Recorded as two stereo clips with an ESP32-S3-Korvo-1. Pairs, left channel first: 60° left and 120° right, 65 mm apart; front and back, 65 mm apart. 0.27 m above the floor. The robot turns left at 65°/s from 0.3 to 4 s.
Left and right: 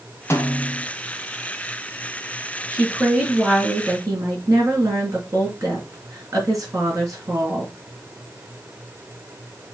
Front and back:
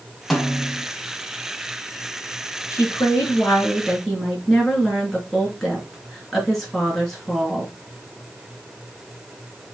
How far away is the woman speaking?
About 4 m.